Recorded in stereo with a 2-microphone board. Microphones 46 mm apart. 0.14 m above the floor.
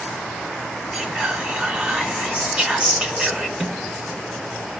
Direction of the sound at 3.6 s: Centre (ahead or behind).